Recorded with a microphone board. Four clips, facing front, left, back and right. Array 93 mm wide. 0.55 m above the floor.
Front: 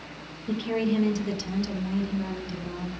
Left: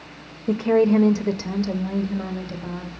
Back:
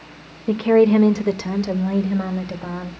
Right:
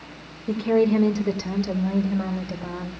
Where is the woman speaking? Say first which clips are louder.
Left 2 dB, back 12 dB; 155° left, 1.5 m; by 2.9 s 165° right, 2.5 m.